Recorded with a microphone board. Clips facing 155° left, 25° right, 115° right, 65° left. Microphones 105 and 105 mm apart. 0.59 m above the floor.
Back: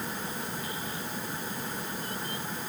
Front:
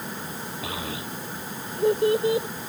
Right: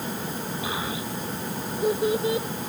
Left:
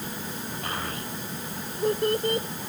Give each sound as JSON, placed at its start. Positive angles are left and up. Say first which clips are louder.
{"t": 0.6, "sound": "a child speaking", "louder": "front 4 dB, right 2 dB", "azimuth_deg": -30}